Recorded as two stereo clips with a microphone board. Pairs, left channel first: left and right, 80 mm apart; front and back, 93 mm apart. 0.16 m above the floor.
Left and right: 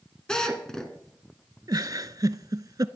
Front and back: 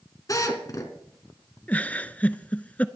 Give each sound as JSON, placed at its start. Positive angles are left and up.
{"t": 0.3, "sound": "a drill", "azimuth_deg": 15, "distance_m": 2.0}
{"t": 1.7, "sound": "a giggle", "azimuth_deg": -70, "distance_m": 0.6}